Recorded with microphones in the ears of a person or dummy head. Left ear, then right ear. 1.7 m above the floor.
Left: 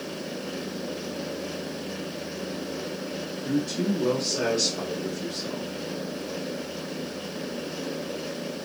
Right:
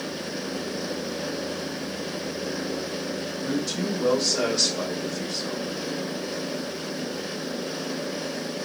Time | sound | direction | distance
3.4 | a man speaking | 50° right (ahead or behind) | 1.2 m